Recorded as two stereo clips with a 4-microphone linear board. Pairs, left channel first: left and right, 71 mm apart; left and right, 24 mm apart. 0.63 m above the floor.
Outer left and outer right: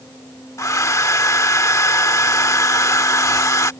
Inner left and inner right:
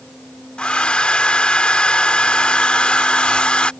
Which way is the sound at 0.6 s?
50° left (ahead or behind).